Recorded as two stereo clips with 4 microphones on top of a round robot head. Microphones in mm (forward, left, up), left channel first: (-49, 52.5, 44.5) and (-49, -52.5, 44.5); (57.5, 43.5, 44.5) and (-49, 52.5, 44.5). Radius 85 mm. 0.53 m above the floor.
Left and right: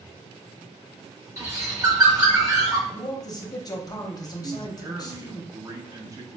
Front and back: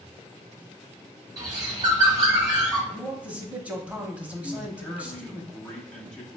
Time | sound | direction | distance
1.4 | a bird | 140° right | 1.3 m
2.9 | a man speaking | 105° left | 0.9 m
4.4 | a man speaking | 80° right | 0.7 m